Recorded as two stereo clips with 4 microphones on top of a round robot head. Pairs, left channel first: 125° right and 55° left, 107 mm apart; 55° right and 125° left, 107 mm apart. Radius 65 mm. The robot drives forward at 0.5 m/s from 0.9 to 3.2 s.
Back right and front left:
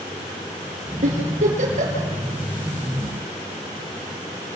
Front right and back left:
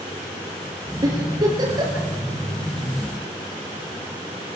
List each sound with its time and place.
1.0 s a giggle: 65° left, 6.5 m; by 2.1 s 70° left, 6.5 m